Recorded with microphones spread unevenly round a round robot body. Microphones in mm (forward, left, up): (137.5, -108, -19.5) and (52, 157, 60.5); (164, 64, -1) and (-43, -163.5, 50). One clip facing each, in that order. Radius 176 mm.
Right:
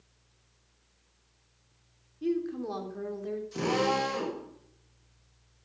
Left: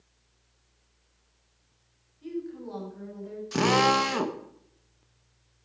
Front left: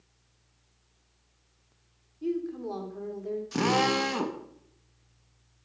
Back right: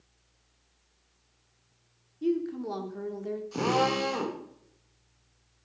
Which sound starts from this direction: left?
A drill, at 3.5 s.